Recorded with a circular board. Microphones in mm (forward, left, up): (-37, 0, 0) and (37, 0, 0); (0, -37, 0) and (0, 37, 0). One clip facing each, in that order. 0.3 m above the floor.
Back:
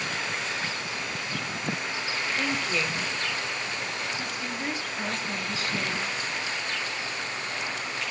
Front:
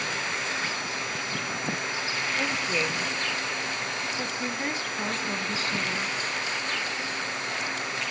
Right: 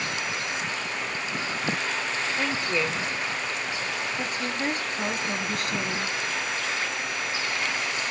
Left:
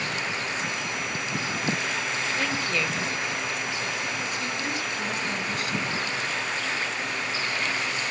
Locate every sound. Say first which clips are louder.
2.4 s a woman speaking: even, right 2 dB; 50° right, 0.9 m; by 6.2 s 55° right, 2.5 m